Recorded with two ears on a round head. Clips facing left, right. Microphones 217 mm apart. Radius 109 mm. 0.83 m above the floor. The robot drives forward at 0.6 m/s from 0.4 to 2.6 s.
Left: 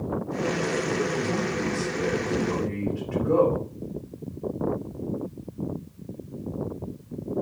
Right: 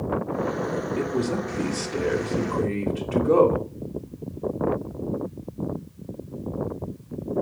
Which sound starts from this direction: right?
A man speaking, at 1.0 s.